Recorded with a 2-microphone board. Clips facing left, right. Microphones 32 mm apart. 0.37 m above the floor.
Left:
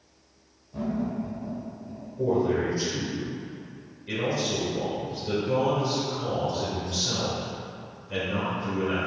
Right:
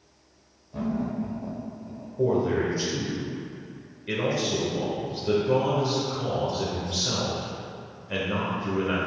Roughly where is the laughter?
Centre.